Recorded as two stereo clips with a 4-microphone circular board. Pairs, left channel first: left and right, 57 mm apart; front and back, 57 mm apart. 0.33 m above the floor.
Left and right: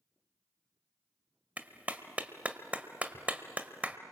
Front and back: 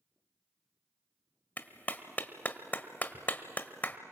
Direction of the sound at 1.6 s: 40° right.